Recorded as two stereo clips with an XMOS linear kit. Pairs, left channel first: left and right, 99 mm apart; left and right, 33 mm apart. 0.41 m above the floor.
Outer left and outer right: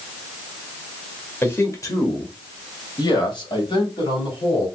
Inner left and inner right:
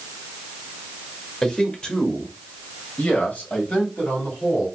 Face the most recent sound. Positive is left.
turn(degrees=70)  # may be behind; listen again after turning